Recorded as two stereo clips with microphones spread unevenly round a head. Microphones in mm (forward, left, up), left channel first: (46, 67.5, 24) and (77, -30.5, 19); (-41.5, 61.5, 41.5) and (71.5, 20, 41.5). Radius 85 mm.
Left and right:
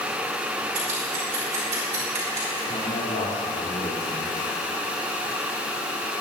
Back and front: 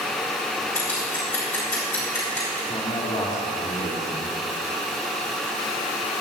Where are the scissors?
125° right, 4 m.